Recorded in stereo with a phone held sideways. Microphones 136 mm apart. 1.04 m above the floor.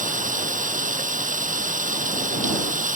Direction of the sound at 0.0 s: 75° right (ahead or behind).